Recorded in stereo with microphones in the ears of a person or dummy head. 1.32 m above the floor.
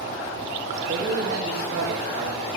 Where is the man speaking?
55° right (ahead or behind), 2 m.